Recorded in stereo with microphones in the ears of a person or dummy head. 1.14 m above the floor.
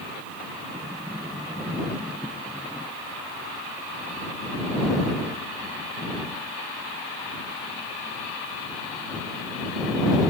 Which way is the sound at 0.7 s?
5° right (ahead or behind).